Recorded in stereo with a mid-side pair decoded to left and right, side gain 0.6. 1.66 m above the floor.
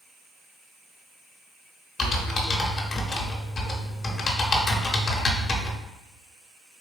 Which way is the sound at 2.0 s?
30° left.